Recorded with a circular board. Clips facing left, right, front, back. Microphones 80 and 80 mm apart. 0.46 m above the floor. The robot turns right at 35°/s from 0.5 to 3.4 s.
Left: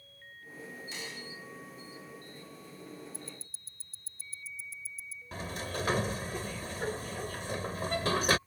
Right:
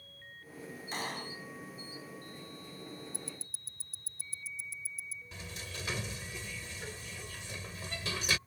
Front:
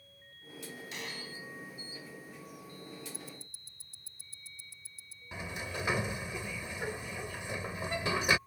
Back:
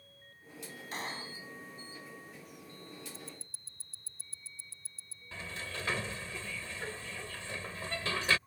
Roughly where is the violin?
No violin in this recording.